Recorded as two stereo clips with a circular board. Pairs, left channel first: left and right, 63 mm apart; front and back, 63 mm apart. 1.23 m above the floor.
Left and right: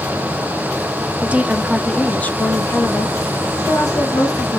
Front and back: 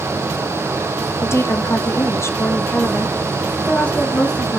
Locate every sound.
1.2 s a woman speaking: 30° right, 0.7 m; by 4.6 s 70° left, 1.7 m